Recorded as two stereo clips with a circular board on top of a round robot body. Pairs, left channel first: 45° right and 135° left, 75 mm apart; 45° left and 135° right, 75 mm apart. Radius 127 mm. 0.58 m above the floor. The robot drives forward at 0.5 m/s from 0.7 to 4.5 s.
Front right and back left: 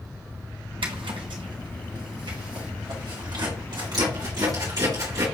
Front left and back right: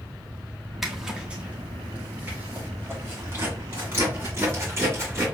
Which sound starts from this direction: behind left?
A zipper, at 0.8 s.